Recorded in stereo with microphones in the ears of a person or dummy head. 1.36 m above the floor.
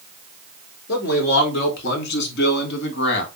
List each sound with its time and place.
0.9 s a man speaking: 60° left (ahead or behind), 4.5 m; by 3.3 s 70° left (ahead or behind), 2.5 m